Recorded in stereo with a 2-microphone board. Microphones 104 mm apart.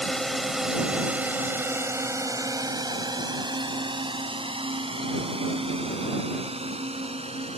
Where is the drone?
5° left (ahead or behind); by 7.6 s 70° right (ahead or behind).